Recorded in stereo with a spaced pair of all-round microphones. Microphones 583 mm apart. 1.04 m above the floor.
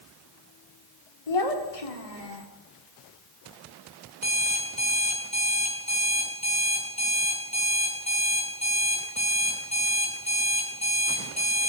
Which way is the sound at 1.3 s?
75° left (ahead or behind).